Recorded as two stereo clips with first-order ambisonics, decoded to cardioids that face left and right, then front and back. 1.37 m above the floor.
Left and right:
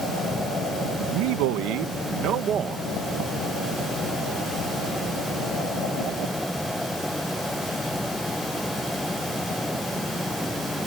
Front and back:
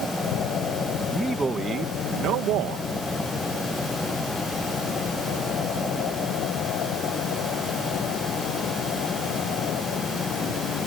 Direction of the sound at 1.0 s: 90° right.